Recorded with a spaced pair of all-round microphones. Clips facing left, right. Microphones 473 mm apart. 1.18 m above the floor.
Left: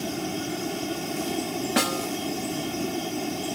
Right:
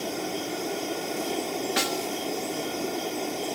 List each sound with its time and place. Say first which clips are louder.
0.0 s running water: left 1 dB; 30° left (ahead or behind)
1.8 s a snare drum: left 3 dB; 70° left (ahead or behind)